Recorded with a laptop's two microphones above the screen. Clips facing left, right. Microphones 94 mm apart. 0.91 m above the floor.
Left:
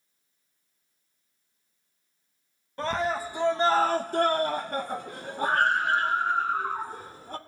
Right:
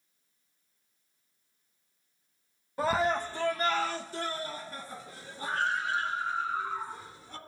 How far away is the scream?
About 0.8 m.